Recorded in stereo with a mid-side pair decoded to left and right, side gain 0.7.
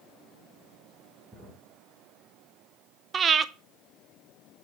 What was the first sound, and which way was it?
A drawer, 15° right.